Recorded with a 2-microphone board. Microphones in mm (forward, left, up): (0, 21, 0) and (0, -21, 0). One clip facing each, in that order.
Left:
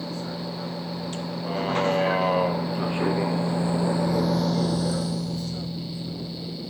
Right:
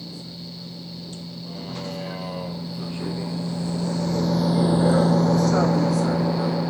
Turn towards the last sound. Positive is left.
turn(degrees=-85)